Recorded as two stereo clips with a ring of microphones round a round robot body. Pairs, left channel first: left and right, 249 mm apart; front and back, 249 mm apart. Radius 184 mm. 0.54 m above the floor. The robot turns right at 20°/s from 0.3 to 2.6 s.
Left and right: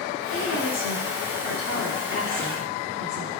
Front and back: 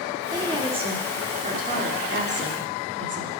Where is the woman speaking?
105° left, 1.6 m; by 3.3 s 150° left, 1.6 m.